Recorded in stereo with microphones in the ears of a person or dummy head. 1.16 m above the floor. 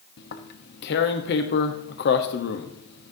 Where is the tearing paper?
55° left (ahead or behind), 1.0 m.